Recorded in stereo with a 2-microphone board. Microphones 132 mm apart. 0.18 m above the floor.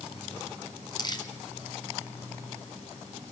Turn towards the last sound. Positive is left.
turn(degrees=35)  # may be behind; listen again after turning